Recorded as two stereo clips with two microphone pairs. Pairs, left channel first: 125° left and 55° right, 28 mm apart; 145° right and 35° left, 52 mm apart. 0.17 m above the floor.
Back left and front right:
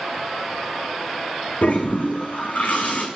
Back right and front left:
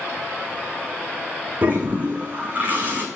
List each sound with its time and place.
1.6 s a toilet flushing: 95° left, 1.8 m